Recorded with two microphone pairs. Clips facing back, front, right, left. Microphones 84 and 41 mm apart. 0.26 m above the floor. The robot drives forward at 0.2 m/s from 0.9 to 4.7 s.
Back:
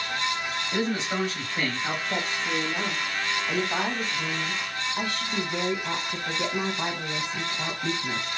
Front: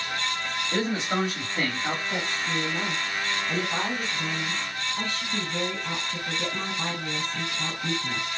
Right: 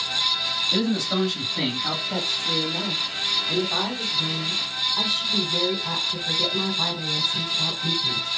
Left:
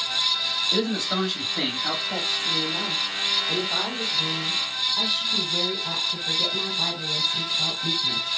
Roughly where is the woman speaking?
Behind.